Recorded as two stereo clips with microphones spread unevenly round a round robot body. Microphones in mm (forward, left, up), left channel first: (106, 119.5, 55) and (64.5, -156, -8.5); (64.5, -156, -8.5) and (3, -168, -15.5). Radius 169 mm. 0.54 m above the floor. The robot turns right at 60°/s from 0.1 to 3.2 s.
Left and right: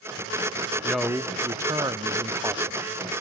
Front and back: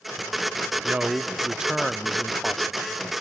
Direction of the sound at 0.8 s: 165° right.